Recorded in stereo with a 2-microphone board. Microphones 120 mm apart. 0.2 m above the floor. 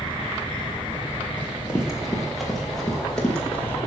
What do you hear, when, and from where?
1.4 s running footsteps: 10° right (ahead or behind), 5 m; by 3.8 s 10° left (ahead or behind), 6 m